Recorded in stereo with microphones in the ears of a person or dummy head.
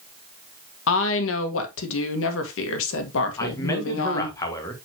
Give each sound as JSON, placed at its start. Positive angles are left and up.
{"t": 0.9, "sound": "a woman speaking", "side_deg": 80, "distance_m": 1.8}
{"t": 3.4, "sound": "a man speaking", "side_deg": 20, "distance_m": 1.8}